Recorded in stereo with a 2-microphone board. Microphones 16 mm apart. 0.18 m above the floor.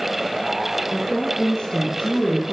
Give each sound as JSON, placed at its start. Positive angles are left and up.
{"t": 0.9, "sound": "a woman speaking", "side_deg": 70, "distance_m": 9.0}